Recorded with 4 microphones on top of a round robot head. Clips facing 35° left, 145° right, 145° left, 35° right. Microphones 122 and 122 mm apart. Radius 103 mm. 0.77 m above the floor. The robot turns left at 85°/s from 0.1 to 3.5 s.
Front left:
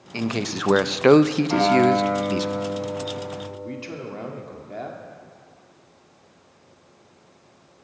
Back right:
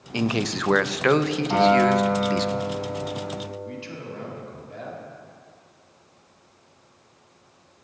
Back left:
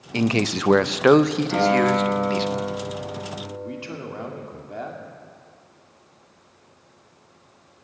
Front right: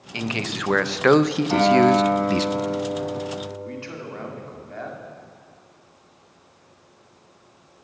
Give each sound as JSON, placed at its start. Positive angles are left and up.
{"t": 0.1, "sound": "a man speaking", "azimuth_deg": 150, "distance_m": 0.5}
{"t": 1.5, "sound": "a guitar", "azimuth_deg": -75, "distance_m": 5.0}
{"t": 3.5, "sound": "a man speaking", "azimuth_deg": 75, "distance_m": 2.0}